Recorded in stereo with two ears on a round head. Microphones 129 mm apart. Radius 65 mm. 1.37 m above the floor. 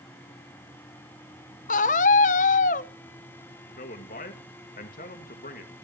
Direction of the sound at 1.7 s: 60° left (ahead or behind).